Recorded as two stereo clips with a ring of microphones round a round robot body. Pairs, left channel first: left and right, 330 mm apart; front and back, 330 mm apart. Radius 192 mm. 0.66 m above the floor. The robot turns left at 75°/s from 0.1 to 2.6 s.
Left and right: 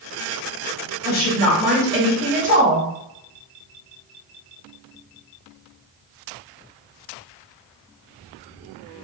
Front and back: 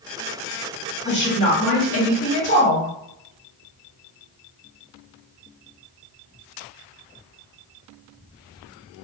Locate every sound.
1.1 s a woman speaking: 45° left, 1.5 m; by 2.9 s 70° right, 1.5 m